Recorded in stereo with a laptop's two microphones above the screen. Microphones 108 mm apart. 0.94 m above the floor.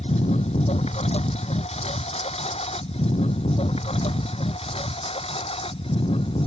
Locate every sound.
0.0 s a lawn mower: 80° left; by 6.5 s 60° left (ahead or behind)